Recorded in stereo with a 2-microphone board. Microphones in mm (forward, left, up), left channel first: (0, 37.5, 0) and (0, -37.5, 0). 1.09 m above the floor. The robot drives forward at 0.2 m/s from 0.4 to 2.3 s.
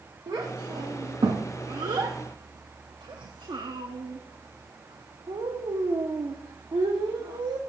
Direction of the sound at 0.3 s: 70° right (ahead or behind).